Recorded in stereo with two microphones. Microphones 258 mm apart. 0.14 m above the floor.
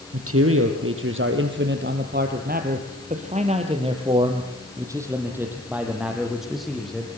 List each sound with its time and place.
0.1 s a man speaking: 60° right (ahead or behind), 4 m; by 7.1 s 5° left (ahead or behind), 5.5 m